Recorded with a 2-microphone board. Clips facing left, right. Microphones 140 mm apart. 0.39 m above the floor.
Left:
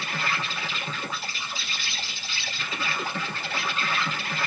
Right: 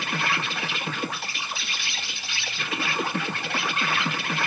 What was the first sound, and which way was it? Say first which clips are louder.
An insect: right 3 dB; 75° right (ahead or behind).